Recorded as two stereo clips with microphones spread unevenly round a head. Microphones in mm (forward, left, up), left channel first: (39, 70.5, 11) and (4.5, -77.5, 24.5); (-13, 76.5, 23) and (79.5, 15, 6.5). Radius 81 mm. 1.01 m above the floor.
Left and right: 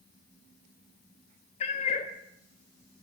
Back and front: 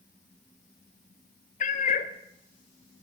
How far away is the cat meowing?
About 0.7 m.